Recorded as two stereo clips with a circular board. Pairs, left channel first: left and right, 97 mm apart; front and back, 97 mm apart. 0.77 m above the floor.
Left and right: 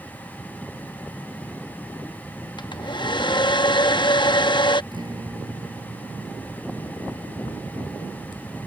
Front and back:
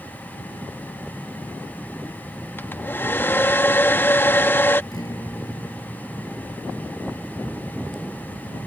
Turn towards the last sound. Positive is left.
turn(degrees=-50)